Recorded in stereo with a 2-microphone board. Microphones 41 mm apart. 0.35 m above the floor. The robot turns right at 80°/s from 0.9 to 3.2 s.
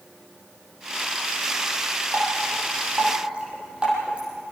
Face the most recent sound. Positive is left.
turn(degrees=-25)  # may be behind; listen again after turning